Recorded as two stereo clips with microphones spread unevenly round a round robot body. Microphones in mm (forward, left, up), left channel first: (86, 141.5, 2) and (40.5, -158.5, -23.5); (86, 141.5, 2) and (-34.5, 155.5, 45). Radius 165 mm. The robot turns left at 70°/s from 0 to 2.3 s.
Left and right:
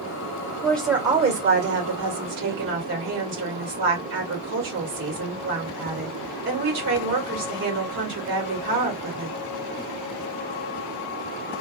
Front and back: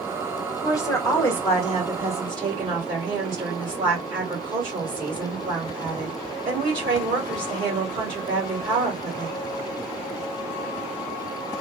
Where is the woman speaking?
Straight ahead, 1.5 m; by 9.4 s 120° right, 1.5 m.